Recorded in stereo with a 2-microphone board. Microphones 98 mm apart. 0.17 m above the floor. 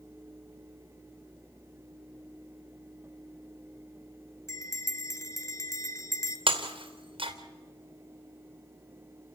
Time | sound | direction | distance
4.5 | a bell | 30° left (ahead or behind) | 1.6 m
6.5 | breaking glass | 65° right (ahead or behind) | 2.5 m